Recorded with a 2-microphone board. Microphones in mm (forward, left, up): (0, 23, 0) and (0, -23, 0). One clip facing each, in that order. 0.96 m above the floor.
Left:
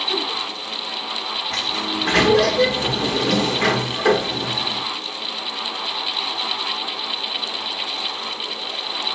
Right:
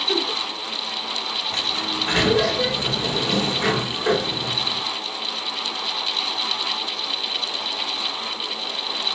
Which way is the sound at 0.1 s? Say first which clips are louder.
Right 3 dB; 20° right (ahead or behind).